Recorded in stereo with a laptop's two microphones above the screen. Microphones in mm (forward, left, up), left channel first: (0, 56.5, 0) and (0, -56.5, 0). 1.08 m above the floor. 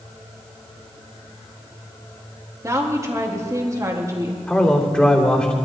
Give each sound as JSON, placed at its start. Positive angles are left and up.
{"t": 2.6, "sound": "a woman speaking", "side_deg": -30, "distance_m": 2.0}
{"t": 4.5, "sound": "a man speaking", "side_deg": 10, "distance_m": 3.0}